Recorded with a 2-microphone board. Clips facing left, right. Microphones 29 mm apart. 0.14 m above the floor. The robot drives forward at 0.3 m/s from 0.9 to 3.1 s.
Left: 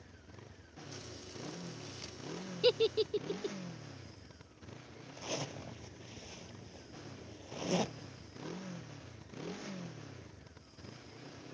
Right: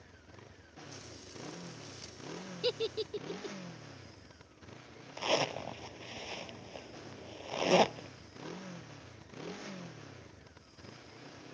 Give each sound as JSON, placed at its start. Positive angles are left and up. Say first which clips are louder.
{"t": 0.0, "sound": "a motorcycle", "louder": "even", "side_deg": -10}
{"t": 2.6, "sound": "a giggle", "louder": "left 5 dB", "side_deg": 20}
{"t": 5.2, "sound": "a zipper", "louder": "right 10 dB", "side_deg": -70}